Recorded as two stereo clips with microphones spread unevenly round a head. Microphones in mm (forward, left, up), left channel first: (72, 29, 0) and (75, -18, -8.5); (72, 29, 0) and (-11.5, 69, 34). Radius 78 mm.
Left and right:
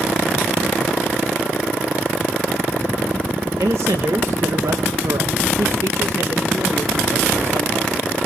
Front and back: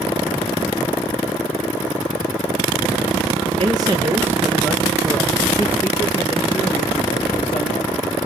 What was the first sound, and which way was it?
A man speaking, 145° right.